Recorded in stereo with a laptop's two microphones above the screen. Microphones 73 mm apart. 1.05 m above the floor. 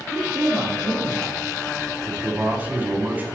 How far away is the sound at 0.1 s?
About 1.2 m.